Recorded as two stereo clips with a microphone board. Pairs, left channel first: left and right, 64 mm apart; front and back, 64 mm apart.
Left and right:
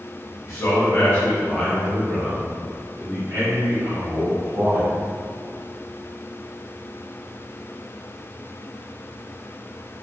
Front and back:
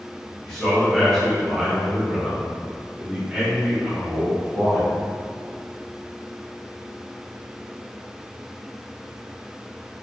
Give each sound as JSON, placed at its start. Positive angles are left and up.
{"t": 0.5, "sound": "a man speaking", "azimuth_deg": 75, "distance_m": 1.2}